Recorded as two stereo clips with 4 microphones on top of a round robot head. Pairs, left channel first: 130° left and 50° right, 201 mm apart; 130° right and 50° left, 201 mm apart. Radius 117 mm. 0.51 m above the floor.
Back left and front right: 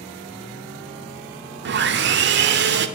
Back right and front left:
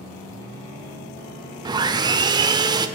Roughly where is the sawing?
Ahead.